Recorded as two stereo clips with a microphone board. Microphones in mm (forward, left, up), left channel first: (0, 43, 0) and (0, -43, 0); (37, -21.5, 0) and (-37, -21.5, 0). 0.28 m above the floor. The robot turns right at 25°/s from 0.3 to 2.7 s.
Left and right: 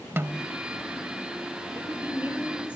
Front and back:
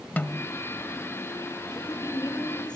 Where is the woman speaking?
35° right, 2.5 m; by 2.8 s 10° right, 2.5 m.